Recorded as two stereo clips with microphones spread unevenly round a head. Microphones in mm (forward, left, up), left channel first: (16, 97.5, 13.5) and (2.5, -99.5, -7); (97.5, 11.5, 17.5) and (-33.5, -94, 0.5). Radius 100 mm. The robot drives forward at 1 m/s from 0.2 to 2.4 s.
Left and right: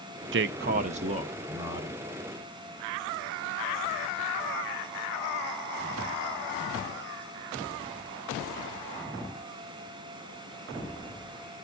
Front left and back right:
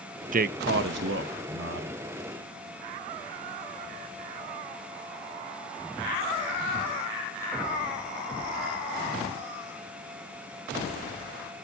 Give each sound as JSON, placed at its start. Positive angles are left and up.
{"t": 0.3, "sound": "a man speaking", "azimuth_deg": -110, "distance_m": 0.6}